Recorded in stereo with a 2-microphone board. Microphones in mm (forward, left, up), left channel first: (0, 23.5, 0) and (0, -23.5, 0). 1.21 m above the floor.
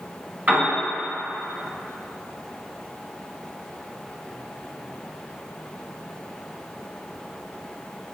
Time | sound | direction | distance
0.5 | a piano | 40° right (ahead or behind) | 1.4 m